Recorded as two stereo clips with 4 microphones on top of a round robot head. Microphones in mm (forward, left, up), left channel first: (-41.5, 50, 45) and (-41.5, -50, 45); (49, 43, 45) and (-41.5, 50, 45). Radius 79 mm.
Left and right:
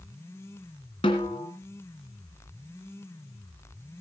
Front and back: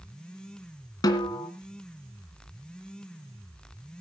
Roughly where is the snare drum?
Ahead left.